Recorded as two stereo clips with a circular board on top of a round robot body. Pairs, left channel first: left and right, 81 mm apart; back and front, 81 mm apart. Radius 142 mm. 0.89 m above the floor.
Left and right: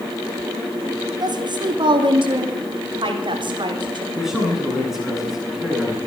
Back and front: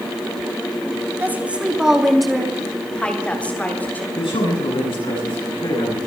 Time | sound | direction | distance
1.2 | a woman speaking | 65° right | 2.0 m
4.2 | a man speaking | 175° right | 9 m